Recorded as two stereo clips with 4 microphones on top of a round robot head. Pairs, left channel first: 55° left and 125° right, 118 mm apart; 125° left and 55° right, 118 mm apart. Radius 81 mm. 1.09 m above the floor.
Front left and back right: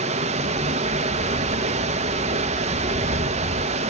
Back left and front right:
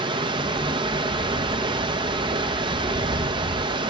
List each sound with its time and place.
0.0 s running water: 100° right, 1.0 m